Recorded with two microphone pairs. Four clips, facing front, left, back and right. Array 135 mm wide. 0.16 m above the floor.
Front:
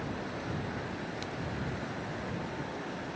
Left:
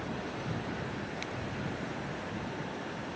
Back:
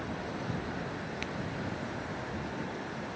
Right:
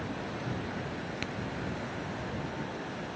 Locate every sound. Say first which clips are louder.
1.2 s a crack: right 2 dB, back 1 dB; 120° right